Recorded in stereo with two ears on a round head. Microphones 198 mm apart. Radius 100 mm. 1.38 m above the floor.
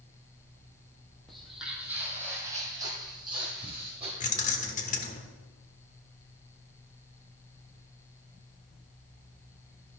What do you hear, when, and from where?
1.3 s footsteps: centre (ahead or behind), 1.8 m; by 4.1 s 25° right (ahead or behind), 3 m
4.2 s keys jangling: 35° left (ahead or behind), 1.0 m